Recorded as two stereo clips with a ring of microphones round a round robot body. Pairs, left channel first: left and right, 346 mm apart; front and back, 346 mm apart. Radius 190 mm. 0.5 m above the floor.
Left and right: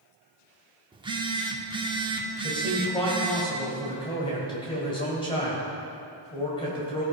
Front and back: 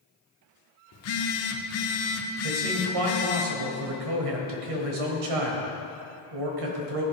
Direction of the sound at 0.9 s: 20° right.